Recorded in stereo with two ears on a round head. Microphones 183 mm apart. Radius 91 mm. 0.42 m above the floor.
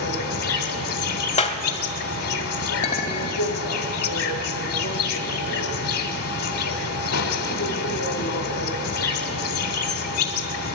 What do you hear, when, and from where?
0.0 s an insect: 80° left, 1.0 m
1.4 s a clap: 30° left (ahead or behind), 1.0 m
2.8 s a clink: 40° left (ahead or behind), 1.3 m